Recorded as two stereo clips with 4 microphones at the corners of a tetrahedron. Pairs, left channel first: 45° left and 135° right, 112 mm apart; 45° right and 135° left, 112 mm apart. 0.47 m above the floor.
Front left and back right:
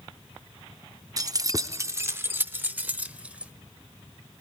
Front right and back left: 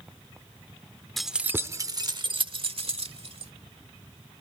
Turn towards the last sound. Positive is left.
turn(degrees=145)